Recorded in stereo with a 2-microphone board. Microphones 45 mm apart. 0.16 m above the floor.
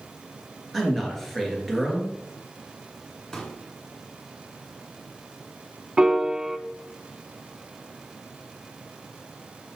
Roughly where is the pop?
Centre.